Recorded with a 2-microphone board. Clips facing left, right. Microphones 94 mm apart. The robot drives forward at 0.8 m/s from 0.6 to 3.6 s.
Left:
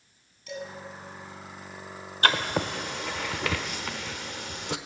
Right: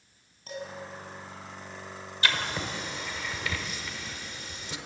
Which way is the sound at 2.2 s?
50° left (ahead or behind).